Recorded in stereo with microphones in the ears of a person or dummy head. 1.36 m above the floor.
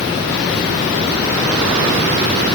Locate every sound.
Only background noise.